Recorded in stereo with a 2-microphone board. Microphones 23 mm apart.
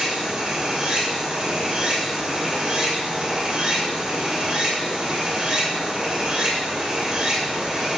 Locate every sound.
0.0 s running water: 35° right (ahead or behind), 3 m